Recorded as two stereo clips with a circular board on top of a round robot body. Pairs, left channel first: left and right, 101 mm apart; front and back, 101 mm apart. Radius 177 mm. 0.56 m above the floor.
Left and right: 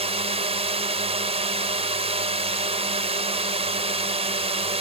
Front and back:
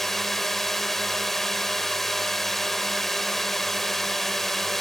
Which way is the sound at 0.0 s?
85° right.